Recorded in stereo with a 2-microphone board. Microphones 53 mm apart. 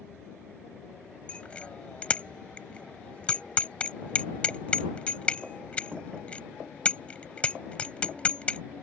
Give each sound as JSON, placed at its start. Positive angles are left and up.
{"t": 1.3, "sound": "a bicycle bell", "side_deg": 25}